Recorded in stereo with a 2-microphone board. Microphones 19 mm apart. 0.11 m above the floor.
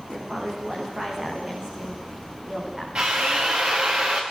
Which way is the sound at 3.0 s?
70° right (ahead or behind).